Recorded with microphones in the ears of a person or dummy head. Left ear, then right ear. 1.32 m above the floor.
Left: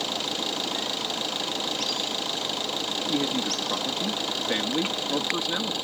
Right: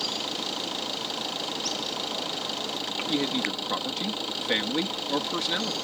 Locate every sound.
0.0 s an engine running: 10° left (ahead or behind)
3.1 s a man speaking: 10° right (ahead or behind)